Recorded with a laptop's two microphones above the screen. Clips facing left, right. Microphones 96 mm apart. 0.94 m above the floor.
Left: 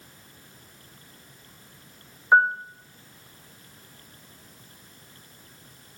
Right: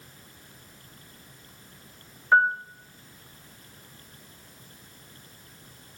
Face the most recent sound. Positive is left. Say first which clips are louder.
# left 2 dB
turn(degrees=15)  # may be behind; listen again after turning